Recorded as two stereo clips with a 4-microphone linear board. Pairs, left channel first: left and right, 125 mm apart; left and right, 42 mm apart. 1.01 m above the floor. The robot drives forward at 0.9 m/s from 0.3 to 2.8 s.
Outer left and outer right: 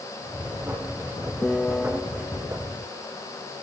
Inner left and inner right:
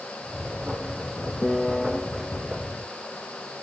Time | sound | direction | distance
1.4 | a piano | 5° left (ahead or behind) | 0.6 m